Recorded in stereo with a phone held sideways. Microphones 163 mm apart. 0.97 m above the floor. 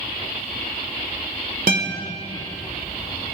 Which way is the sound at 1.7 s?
65° right (ahead or behind).